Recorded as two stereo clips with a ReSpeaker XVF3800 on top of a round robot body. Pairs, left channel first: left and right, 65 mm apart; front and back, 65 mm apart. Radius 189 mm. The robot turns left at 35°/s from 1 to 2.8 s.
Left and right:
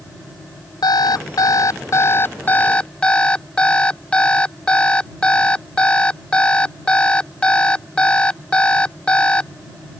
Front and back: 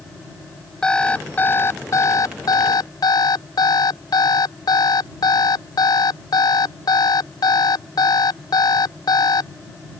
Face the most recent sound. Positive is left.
turn(degrees=15)